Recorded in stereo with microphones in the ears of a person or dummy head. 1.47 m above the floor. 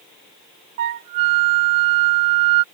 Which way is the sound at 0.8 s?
25° right (ahead or behind).